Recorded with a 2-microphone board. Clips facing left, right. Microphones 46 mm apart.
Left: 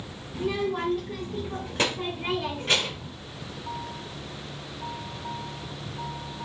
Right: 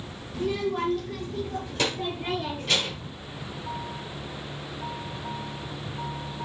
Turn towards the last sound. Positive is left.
turn(degrees=30)  # may be behind; listen again after turning